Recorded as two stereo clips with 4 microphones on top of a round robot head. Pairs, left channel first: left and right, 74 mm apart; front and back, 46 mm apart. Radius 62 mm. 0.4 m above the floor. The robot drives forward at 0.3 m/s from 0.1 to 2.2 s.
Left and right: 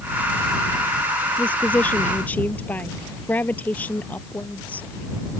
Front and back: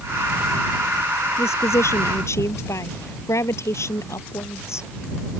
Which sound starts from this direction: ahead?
A woman speaking, at 1.4 s.